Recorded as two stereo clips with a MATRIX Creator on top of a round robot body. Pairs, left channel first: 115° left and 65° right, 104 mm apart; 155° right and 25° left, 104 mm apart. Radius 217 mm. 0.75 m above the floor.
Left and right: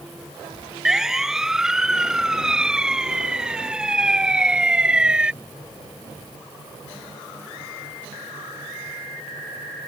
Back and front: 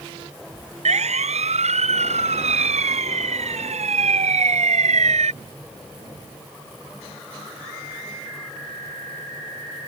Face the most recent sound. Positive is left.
turn(degrees=15)